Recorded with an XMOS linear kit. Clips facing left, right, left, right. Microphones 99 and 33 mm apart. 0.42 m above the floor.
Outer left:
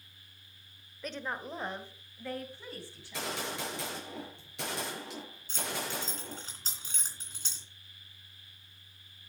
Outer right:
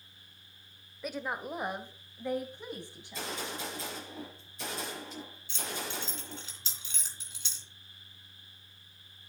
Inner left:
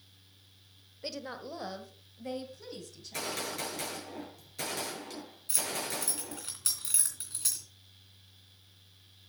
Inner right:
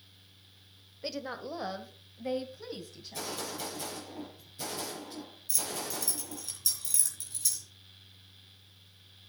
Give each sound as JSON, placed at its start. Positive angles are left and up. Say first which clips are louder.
{"t": 1.0, "sound": "a woman speaking", "louder": "outer right 2 dB, inner right 3 dB", "side_deg": -5, "distance_m": 1.1}
{"t": 3.0, "sound": "a gunshot", "louder": "outer left 4 dB, inner left 4 dB", "side_deg": 80, "distance_m": 6.5}
{"t": 5.5, "sound": "keys jangling", "louder": "outer left 2 dB, inner left 2 dB", "side_deg": 45, "distance_m": 3.0}